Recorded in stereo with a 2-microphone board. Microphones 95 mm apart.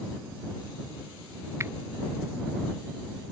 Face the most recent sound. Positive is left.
turn(degrees=-30)  # may be behind; listen again after turning